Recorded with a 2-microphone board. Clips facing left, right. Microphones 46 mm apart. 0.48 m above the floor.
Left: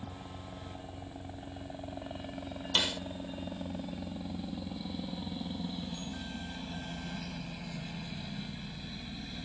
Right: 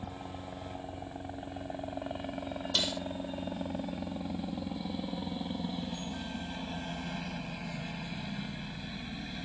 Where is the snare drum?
35° left (ahead or behind).